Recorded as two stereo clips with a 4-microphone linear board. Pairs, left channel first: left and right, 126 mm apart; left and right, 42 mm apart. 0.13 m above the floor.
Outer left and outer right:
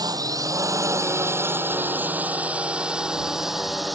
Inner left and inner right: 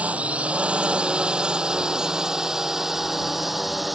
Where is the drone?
30° right (ahead or behind); by 4.0 s centre (ahead or behind).